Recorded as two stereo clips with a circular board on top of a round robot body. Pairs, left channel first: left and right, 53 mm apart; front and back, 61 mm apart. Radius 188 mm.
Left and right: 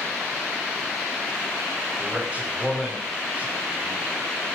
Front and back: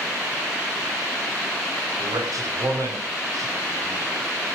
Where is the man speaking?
160° right, 5.5 m.